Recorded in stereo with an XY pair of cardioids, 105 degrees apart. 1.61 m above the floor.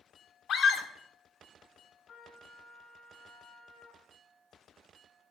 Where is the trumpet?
60° left, 5 m.